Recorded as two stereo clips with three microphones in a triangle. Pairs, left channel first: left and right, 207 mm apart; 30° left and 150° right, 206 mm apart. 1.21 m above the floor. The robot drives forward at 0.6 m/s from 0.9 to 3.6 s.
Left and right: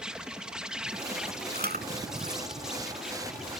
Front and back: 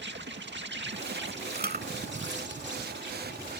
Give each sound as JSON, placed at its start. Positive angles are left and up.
{"t": 0.0, "sound": "an insect", "azimuth_deg": -175}
{"t": 1.5, "sound": "chewing", "azimuth_deg": -120}